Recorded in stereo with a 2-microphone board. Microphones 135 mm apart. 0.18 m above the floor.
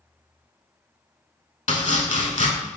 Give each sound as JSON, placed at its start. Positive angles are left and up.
{"t": 1.7, "sound": "chopping", "side_deg": 60, "distance_m": 0.6}